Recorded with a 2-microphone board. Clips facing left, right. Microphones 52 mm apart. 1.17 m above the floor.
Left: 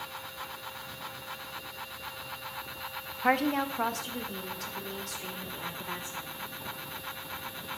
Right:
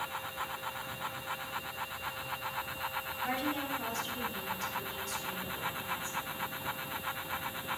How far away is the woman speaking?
About 0.6 m.